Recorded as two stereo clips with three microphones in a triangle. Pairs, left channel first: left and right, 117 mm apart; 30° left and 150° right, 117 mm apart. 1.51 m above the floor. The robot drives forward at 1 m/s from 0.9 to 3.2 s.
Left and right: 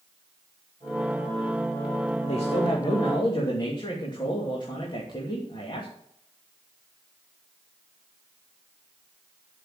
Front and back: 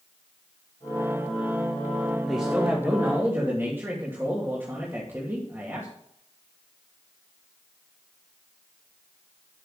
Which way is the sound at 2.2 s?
120° left.